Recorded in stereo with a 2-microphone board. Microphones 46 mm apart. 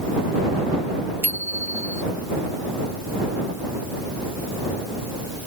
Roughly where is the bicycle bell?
Right.